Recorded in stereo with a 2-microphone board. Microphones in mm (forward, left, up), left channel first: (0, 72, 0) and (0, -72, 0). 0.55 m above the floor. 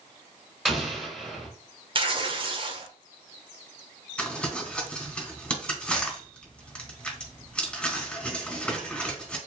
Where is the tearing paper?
40° right (ahead or behind), 1.0 m.